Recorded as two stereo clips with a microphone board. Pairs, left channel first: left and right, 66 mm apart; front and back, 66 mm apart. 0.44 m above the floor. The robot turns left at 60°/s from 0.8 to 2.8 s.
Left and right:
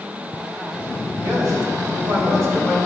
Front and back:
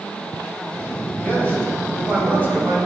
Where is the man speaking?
50° right, 3 m; by 2.8 s 145° right, 3 m.